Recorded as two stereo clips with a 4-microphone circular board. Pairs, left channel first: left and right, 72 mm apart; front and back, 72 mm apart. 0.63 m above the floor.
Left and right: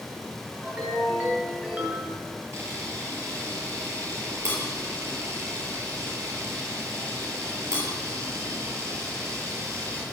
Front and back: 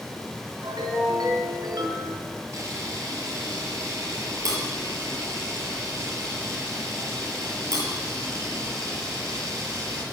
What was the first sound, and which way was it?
A ringtone, 160° right.